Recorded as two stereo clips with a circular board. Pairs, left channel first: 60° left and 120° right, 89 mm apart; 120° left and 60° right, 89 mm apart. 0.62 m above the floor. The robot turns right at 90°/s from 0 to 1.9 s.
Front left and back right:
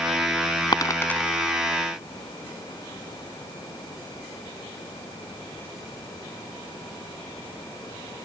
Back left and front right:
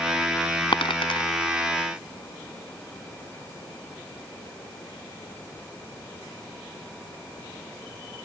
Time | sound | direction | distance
0.7 | a dropped coin | 95° left | ?